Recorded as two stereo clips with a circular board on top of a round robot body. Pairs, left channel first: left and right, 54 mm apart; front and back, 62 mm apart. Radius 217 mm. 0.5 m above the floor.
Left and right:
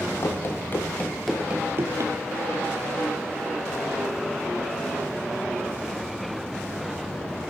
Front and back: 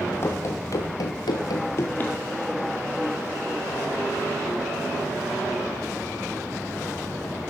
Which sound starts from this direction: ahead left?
Running footsteps, at 0.2 s.